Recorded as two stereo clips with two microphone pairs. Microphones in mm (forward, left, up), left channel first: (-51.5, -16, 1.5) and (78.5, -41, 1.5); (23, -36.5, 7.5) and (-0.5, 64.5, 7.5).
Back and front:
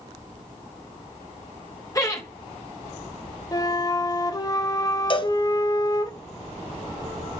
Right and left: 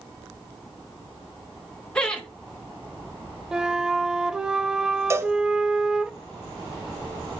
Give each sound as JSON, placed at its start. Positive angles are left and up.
{"t": 1.9, "sound": "laughter", "azimuth_deg": -150, "distance_m": 1.0}
{"t": 3.5, "sound": "a flute", "azimuth_deg": 175, "distance_m": 0.6}
{"t": 5.1, "sound": "a cowbell", "azimuth_deg": 150, "distance_m": 0.7}